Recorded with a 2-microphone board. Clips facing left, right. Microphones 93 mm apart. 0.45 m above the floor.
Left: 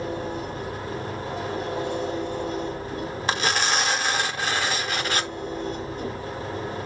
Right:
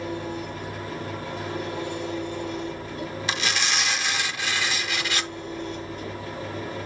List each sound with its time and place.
0.0 s an engine running: 30° left (ahead or behind), 6.5 m
3.3 s tearing paper: 45° left (ahead or behind), 0.9 m